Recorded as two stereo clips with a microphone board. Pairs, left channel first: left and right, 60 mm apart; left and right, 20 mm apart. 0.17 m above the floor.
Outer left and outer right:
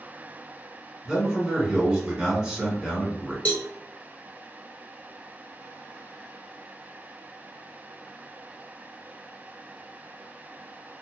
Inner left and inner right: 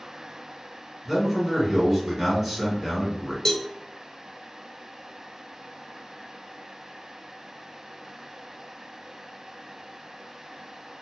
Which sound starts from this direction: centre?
A man speaking, at 1.1 s.